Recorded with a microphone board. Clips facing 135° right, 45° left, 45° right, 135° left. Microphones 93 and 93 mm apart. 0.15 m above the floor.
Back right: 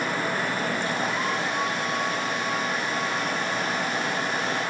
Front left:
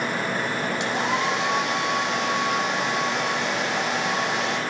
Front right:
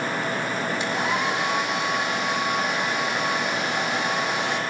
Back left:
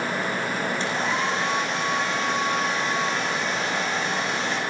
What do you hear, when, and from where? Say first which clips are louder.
0.8 s a hair dryer: front left 3 dB, front right 2 dB; 30° left, 8 m